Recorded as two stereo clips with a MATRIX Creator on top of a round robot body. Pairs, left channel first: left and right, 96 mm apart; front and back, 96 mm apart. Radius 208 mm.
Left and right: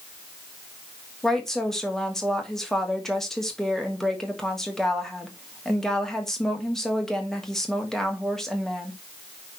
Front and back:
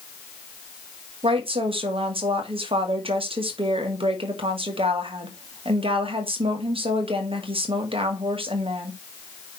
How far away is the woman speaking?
About 2.5 m.